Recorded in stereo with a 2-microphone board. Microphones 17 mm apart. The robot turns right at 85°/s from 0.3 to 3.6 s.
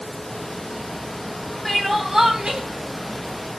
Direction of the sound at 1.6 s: 165° left.